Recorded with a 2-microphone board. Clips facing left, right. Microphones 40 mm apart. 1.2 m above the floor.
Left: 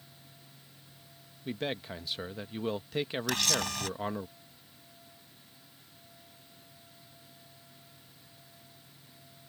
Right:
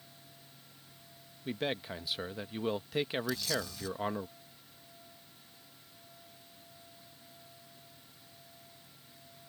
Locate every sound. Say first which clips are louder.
1.4 s a man speaking: even; 5° right (ahead or behind)
3.3 s a camera shutter: left 4 dB; 75° left (ahead or behind)